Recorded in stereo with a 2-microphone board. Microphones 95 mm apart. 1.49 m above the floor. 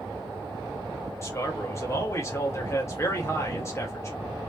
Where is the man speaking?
30° left (ahead or behind), 2.0 m.